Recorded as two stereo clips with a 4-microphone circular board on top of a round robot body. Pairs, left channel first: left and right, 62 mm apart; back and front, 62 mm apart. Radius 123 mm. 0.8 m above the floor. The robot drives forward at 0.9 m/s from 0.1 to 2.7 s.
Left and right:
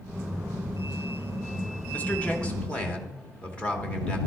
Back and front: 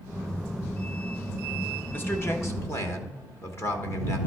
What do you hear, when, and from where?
1.9 s a man speaking: 140° left, 1.3 m; by 4.2 s 155° left, 1.8 m